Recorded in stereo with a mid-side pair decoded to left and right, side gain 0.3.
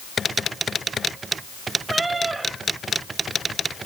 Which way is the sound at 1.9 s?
45° right.